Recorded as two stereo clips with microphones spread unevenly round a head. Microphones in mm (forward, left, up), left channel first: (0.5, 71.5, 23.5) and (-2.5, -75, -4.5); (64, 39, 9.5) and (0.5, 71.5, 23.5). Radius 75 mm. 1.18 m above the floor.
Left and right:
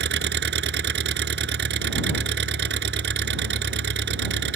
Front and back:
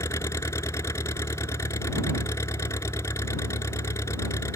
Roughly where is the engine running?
Right.